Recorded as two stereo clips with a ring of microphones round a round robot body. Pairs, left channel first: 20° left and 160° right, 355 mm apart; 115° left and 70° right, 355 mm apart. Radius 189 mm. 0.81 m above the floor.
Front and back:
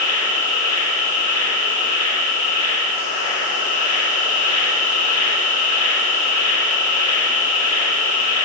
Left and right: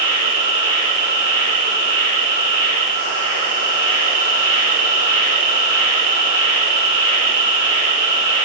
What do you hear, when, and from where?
0.0 s an insect: 35° right, 5.5 m